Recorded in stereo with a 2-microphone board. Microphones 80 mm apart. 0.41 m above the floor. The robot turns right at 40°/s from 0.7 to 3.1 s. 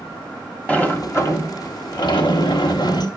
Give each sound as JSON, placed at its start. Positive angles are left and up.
{"t": 0.7, "sound": "a sliding door", "azimuth_deg": 20, "distance_m": 1.2}